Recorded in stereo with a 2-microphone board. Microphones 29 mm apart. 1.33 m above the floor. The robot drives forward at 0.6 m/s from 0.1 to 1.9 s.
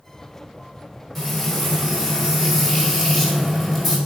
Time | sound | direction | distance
1.1 | frying | 10° left (ahead or behind) | 4 m